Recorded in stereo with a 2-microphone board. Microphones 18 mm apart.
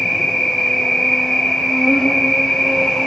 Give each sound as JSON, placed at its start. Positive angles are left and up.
{"t": 0.0, "sound": "an insect", "side_deg": 60, "distance_m": 0.8}